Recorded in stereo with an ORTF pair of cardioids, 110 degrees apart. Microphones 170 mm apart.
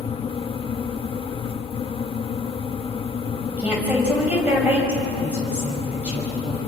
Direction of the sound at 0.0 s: 35° left.